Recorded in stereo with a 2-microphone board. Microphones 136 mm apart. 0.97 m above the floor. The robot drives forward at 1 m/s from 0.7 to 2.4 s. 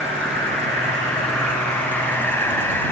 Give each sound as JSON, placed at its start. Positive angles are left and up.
{"t": 0.0, "sound": "an insect", "side_deg": 5, "distance_m": 2.5}